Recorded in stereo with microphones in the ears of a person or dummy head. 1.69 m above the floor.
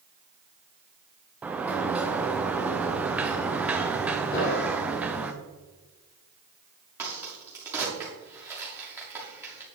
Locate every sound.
1.4 s a sliding door: 5° right (ahead or behind), 0.5 m
4.3 s an explosion: 60° left (ahead or behind), 3.5 m
7.0 s a crack: 10° right (ahead or behind), 1.7 m